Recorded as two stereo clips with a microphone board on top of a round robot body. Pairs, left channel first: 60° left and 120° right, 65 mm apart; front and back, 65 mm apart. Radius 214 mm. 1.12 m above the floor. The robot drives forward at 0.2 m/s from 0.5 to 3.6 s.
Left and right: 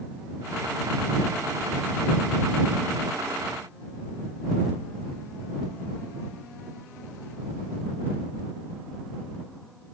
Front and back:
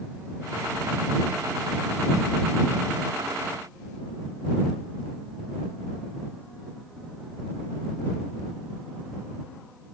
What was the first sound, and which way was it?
Only background noise.